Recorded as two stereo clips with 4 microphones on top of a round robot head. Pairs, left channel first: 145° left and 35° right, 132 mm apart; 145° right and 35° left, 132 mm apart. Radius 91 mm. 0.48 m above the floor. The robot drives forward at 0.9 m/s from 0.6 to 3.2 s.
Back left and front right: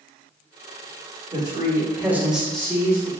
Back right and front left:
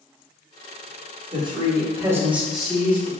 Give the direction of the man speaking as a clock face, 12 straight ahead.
12 o'clock.